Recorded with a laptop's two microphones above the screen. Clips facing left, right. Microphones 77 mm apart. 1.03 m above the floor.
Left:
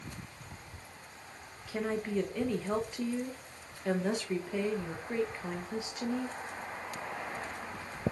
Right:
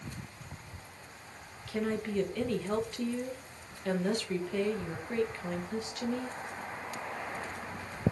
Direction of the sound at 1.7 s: 10° left (ahead or behind).